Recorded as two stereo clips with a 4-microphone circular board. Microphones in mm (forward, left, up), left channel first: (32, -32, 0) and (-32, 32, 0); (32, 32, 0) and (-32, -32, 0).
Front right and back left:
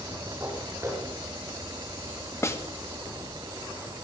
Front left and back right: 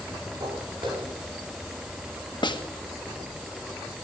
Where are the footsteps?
160° right, 7.5 m.